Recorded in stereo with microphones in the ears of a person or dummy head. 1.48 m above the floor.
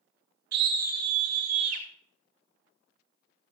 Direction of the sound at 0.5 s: 55° right (ahead or behind).